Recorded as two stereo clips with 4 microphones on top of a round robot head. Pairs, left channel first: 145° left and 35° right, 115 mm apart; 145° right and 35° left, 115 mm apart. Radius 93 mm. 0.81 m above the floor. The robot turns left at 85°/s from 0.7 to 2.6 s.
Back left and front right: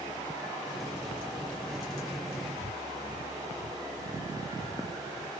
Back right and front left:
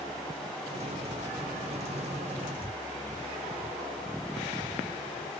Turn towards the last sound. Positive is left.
turn(degrees=115)